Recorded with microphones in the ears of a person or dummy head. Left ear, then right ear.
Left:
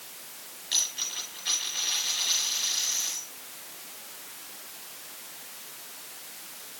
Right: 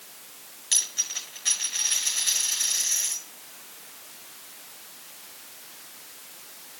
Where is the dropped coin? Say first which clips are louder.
Right 2 dB; 40° right (ahead or behind), 6 m.